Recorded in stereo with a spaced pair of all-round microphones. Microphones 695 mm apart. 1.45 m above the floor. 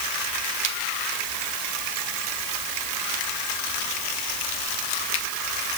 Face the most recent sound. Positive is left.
No sound to turn to.